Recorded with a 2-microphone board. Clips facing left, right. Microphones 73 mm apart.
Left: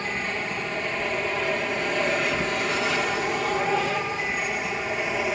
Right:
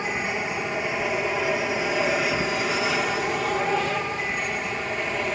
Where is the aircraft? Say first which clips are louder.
Right 2 dB; 10° right (ahead or behind); by 5.3 s 5° left (ahead or behind).